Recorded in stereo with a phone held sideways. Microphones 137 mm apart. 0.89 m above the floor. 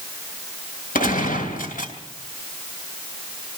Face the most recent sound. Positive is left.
turn(degrees=80)